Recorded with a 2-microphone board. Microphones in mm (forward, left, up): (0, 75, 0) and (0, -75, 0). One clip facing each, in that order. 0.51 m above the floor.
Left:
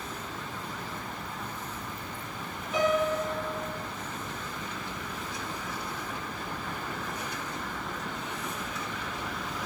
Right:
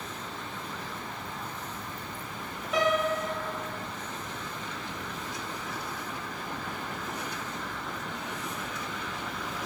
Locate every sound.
2.7 s a piano: 80° right, 1.5 m